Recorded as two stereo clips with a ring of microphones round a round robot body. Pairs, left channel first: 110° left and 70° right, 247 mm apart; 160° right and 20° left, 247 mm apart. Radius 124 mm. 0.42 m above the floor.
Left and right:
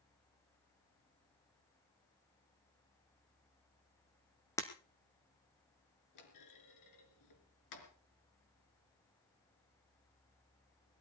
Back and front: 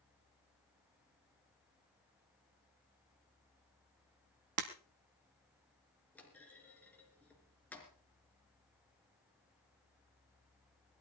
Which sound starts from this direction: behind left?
A clunk, at 6.2 s.